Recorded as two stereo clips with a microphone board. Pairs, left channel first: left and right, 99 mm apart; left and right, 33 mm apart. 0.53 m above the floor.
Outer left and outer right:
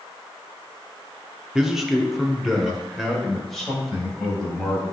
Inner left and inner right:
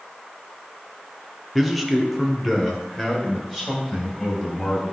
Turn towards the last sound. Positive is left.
turn(degrees=5)  # may be behind; listen again after turning